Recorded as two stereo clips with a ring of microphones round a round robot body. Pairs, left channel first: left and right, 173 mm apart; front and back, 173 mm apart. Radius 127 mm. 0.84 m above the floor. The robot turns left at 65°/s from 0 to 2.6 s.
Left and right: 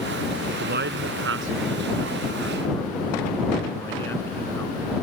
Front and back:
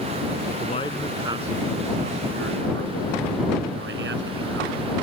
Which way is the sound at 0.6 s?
60° right.